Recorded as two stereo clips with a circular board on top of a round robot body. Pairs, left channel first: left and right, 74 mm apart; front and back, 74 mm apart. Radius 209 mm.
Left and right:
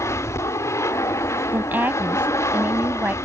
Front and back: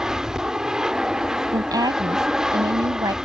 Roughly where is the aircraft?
Left.